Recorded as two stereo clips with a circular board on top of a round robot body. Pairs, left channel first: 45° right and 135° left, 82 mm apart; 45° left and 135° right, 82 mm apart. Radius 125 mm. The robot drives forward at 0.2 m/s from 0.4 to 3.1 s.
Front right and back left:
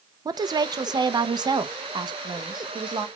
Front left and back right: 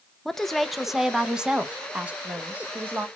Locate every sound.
0.2 s a woman speaking: 130° left, 0.5 m; by 3.1 s 160° left, 0.9 m